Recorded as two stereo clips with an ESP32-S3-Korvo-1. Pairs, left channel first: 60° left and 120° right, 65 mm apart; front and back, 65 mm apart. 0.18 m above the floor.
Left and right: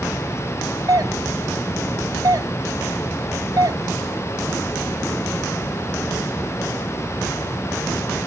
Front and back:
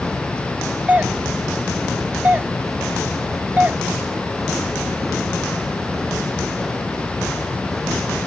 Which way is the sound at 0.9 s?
115° right.